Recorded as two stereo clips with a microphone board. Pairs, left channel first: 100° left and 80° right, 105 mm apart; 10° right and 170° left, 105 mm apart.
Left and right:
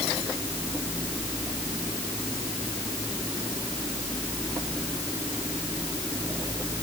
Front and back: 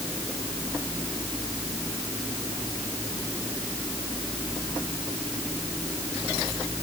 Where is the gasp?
No gasp in this recording.